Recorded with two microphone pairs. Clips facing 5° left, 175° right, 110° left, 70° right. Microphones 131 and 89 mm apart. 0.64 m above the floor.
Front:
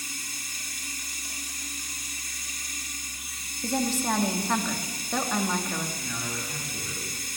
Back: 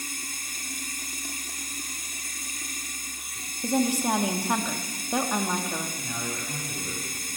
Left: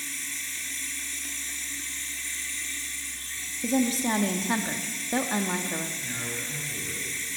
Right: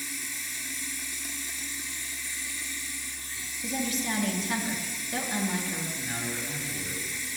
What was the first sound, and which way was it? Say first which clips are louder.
Running water: back 2 dB, even; 145° right.